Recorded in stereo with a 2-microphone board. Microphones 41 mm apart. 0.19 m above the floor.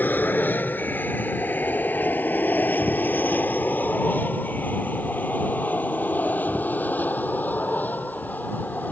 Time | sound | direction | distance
0.0 | an aircraft | 50° left (ahead or behind) | ?